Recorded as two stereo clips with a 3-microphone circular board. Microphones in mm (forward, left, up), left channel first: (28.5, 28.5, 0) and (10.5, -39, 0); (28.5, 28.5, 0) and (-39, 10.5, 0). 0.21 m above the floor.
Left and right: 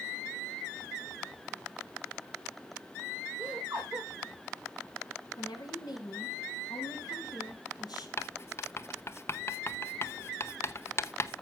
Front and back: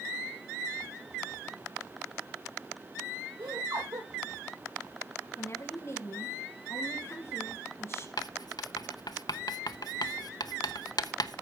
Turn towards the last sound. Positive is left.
turn(degrees=25)